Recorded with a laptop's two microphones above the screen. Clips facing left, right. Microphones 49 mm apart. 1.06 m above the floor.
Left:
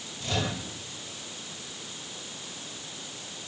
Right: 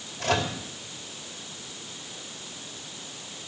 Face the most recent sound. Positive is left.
turn(degrees=-70)  # may be behind; listen again after turning